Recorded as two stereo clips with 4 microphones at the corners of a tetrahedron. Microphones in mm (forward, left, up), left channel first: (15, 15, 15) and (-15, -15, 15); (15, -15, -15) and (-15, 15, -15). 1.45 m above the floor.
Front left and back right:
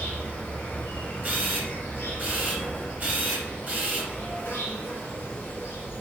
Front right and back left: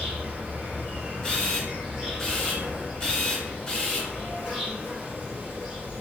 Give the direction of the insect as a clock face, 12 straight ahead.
10 o'clock.